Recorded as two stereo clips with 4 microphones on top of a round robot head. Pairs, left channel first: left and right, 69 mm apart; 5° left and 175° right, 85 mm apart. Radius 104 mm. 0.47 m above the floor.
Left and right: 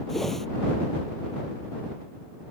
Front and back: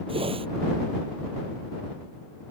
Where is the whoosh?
175° left.